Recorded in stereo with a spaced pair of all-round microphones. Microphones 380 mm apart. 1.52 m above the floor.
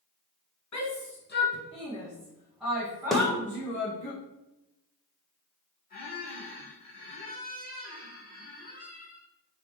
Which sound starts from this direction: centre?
A snare drum, at 3.1 s.